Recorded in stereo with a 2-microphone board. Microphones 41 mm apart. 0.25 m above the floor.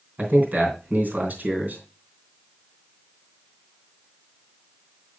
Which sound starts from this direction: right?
A man speaking, at 0.2 s.